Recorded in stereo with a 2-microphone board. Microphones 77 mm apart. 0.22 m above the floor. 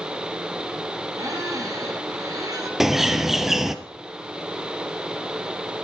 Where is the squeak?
50° right (ahead or behind), 2.5 m.